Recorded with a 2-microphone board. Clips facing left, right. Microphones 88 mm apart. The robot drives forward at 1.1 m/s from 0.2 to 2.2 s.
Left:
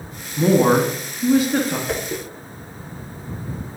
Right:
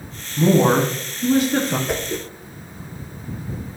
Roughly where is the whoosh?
Centre.